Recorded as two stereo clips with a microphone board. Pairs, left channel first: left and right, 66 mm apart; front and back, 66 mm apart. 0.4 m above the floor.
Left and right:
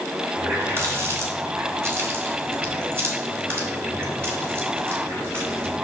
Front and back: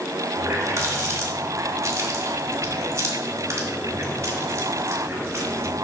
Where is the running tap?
140° right, 1.8 m.